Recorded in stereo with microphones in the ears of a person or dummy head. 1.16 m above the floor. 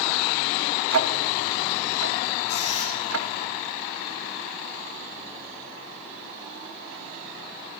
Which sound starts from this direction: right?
Ticking, at 0.9 s.